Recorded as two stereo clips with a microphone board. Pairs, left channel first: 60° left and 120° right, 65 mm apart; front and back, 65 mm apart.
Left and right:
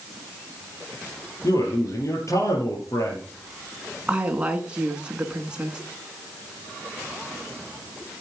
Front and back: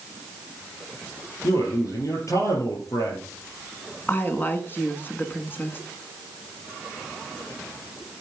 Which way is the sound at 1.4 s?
30° left.